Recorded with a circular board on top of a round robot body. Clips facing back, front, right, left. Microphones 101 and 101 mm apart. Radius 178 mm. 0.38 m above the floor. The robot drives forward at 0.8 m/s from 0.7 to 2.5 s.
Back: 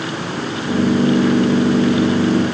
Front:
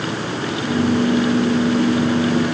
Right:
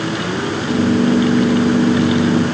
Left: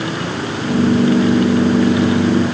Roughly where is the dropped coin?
I don't hear a dropped coin.